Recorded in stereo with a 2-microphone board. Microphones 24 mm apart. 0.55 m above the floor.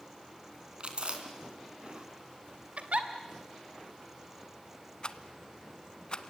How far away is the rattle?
About 1.0 m.